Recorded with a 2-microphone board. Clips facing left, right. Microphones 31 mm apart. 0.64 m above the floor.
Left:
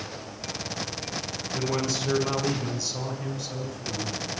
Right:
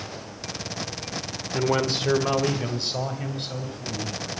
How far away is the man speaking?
About 1.5 m.